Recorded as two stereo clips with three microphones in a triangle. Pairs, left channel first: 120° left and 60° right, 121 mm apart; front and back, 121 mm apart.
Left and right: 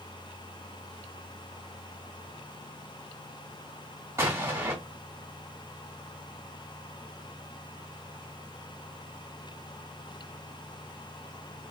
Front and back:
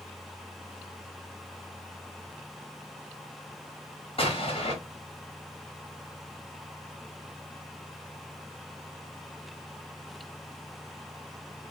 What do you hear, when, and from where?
4.2 s an explosion: straight ahead, 1.3 m